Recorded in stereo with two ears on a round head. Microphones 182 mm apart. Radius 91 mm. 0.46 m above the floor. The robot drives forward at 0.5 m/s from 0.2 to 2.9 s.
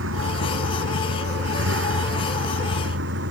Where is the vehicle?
70° right (ahead or behind); by 3.3 s 65° right (ahead or behind).